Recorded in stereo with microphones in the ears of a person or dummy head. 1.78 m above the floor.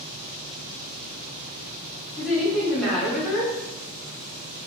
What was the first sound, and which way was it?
A woman speaking, centre (ahead or behind).